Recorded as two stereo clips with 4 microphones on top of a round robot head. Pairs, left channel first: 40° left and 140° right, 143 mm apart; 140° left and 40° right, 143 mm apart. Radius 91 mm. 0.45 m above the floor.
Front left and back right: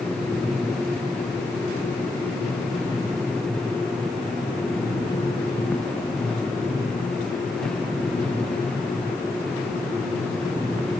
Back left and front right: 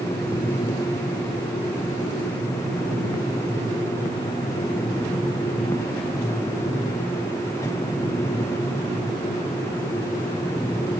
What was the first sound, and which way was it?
Only background noise.